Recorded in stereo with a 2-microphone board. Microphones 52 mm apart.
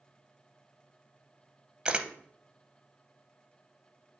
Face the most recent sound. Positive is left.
turn(degrees=-20)  # may be behind; listen again after turning